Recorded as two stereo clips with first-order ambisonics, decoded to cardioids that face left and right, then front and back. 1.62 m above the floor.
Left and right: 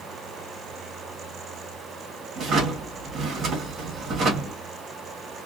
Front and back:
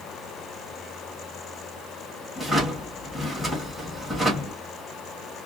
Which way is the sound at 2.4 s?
80° right.